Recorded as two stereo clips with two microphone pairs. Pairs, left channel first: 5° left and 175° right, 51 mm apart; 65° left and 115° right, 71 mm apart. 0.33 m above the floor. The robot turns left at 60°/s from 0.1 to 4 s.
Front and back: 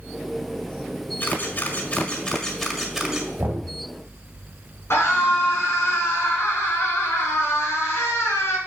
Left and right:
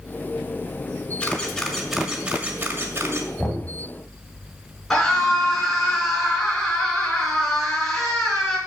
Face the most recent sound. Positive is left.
turn(degrees=-20)